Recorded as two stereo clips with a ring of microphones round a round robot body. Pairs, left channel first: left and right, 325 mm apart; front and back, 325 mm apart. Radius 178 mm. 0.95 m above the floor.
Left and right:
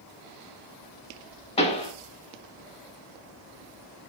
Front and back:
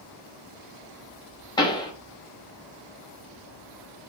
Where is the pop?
55° left, 0.7 m.